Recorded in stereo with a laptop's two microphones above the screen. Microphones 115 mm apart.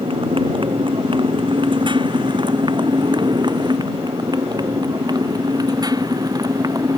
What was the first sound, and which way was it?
A motorcycle, 50° right (ahead or behind).